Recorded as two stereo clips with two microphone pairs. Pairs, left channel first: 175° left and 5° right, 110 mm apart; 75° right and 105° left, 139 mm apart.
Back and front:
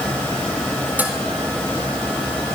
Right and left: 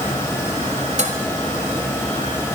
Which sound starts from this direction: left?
Dishes clattering, at 1.0 s.